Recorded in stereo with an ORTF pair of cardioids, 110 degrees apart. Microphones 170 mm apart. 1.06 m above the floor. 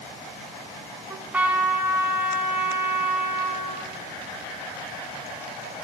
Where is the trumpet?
10° right, 2.5 m.